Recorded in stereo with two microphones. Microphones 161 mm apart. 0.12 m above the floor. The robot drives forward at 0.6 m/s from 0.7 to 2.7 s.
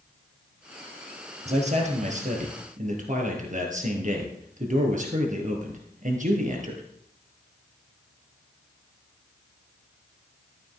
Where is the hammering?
I don't hear hammering.